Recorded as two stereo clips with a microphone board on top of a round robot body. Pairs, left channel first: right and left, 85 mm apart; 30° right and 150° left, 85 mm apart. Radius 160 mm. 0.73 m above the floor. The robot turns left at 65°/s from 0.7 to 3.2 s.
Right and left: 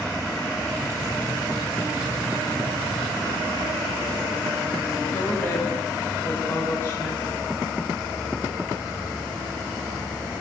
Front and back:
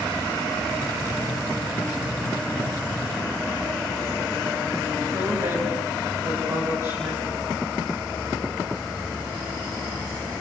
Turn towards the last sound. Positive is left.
turn(degrees=-155)